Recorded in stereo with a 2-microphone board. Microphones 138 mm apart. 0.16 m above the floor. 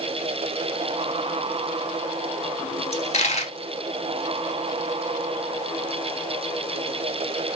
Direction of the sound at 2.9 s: 55° left (ahead or behind).